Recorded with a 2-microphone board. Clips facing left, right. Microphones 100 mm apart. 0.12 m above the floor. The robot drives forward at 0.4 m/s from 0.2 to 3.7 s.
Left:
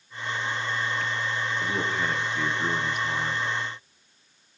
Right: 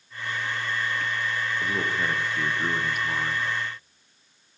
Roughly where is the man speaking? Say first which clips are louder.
Right 1 dB; centre.